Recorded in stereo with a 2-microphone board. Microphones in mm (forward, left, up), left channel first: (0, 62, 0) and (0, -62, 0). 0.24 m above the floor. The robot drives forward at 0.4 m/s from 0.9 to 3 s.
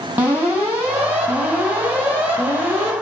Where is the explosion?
I don't hear an explosion.